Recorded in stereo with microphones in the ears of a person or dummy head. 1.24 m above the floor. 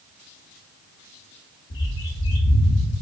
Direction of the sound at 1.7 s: 60° left (ahead or behind).